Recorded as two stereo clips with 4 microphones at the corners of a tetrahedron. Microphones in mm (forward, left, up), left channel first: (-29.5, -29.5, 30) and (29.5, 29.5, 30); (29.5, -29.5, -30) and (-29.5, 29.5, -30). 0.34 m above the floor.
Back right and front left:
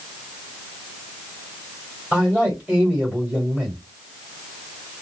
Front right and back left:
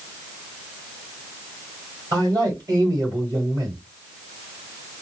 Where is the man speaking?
125° left, 1.6 m.